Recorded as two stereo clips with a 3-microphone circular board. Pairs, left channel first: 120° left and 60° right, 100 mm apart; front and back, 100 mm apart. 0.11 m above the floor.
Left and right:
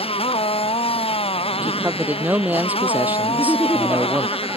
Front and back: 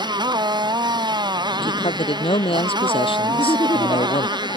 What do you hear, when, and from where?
0.0 s a motorcycle: 135° left
1.6 s a man speaking: 15° left
3.3 s laughter: 15° left